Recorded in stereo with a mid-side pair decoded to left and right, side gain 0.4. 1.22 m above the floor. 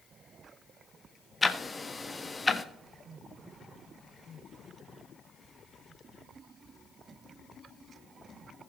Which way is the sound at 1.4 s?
25° left.